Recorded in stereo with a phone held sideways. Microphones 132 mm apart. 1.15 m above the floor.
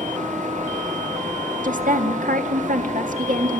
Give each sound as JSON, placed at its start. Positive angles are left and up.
{"t": 0.0, "sound": "a fan", "side_deg": -70, "distance_m": 4.5}
{"t": 1.6, "sound": "a woman speaking", "side_deg": -85, "distance_m": 1.9}